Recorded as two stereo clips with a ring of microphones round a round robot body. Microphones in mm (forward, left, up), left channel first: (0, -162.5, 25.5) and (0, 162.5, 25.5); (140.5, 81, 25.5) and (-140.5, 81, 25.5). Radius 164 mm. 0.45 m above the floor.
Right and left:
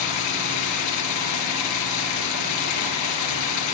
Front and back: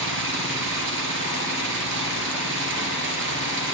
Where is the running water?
125° right, 4 m.